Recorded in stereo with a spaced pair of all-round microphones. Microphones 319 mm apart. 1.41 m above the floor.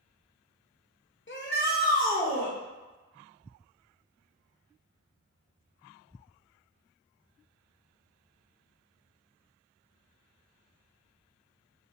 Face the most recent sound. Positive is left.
turn(degrees=20)  # may be behind; listen again after turning